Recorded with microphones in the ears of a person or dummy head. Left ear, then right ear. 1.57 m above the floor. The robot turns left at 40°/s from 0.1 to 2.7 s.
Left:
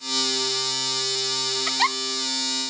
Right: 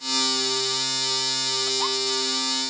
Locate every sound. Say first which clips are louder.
1.7 s a giggle: left 2 dB; 55° left (ahead or behind); by 2.0 s 65° left (ahead or behind)